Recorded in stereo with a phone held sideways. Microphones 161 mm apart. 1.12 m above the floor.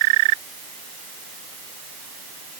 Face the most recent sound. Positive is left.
No sound to turn to.